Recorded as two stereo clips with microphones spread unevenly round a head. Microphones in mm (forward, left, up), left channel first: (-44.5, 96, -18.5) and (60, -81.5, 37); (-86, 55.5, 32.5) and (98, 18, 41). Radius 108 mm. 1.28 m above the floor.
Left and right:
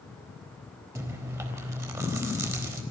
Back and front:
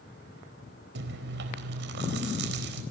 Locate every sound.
0.9 s chewing: 15° left, 4 m